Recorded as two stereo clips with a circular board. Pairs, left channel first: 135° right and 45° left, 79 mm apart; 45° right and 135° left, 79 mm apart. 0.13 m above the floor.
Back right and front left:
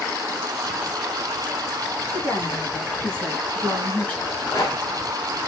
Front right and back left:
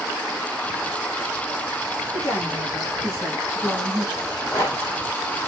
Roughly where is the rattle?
Right.